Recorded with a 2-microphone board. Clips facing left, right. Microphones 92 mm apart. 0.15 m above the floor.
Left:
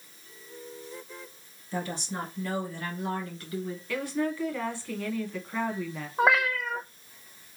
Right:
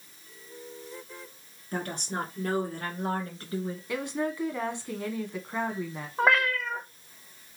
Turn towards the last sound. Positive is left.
turn(degrees=5)  # may be behind; listen again after turning